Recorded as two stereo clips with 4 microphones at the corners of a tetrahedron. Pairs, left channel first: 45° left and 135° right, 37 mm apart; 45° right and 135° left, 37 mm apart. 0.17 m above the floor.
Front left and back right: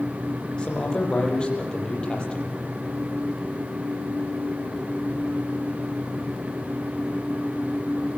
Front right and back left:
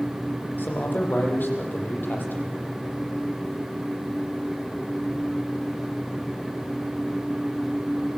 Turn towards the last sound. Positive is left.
turn(degrees=-20)